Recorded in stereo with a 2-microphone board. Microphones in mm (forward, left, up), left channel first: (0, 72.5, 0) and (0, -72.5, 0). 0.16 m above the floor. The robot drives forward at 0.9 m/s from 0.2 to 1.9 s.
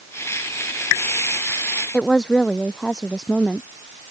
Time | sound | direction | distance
1.9 | a woman speaking | 5° left (ahead or behind) | ?